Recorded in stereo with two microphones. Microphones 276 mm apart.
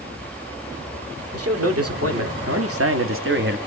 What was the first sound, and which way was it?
A man speaking, 60° right (ahead or behind).